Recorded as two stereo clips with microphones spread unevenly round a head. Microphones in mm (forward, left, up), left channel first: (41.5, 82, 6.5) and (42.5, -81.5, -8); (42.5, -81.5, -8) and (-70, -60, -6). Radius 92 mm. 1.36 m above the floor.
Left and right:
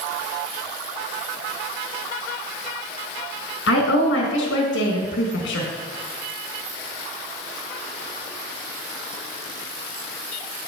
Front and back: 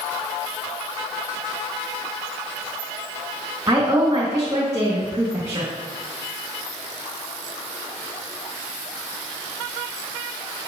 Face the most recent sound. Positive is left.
turn(degrees=95)